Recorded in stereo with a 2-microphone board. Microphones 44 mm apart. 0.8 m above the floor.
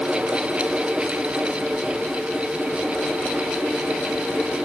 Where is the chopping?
No chopping in this recording.